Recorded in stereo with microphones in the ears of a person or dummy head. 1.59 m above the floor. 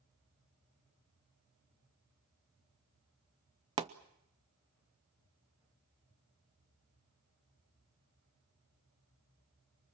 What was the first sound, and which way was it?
A pop, 20° right (ahead or behind).